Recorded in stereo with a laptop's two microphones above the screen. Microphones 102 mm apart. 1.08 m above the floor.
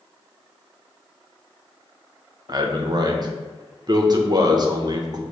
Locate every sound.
2.5 s a man speaking: 40° right (ahead or behind), 0.5 m